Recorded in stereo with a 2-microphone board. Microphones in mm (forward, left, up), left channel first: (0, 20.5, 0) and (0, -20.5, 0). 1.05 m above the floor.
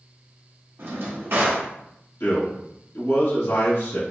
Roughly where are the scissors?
No scissors in this recording.